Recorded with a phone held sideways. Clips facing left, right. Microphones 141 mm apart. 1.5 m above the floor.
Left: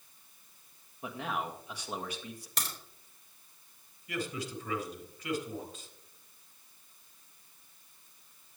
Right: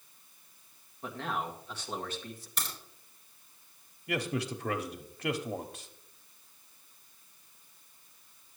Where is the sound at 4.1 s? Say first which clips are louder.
Right 4 dB; 70° right (ahead or behind), 1.0 m.